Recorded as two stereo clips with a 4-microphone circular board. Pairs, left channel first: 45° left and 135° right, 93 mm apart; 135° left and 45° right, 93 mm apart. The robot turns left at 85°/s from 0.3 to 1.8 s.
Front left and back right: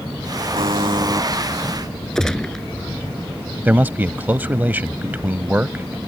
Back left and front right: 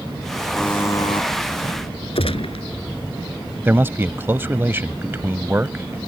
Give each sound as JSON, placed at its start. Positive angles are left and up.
{"t": 0.6, "sound": "a buzzer", "azimuth_deg": -140}
{"t": 2.1, "sound": "a gunshot", "azimuth_deg": 130}
{"t": 3.6, "sound": "a man speaking", "azimuth_deg": -85}